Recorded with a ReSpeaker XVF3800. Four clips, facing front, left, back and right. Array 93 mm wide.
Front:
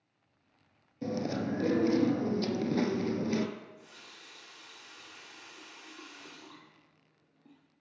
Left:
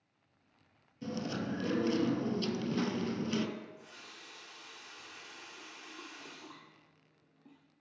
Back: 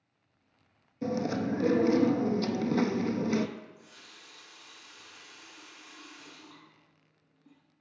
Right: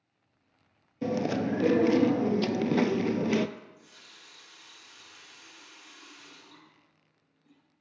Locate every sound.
1.0 s chewing: 90° right, 0.7 m
3.6 s a running tap: 45° left, 2.5 m